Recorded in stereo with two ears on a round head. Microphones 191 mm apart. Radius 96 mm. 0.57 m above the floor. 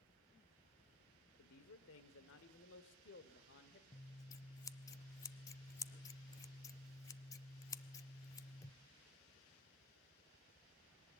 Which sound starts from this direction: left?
A man speaking, at 1.4 s.